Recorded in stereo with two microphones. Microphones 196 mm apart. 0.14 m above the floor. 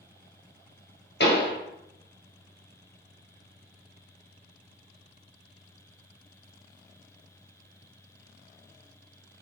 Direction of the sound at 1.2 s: 70° left (ahead or behind).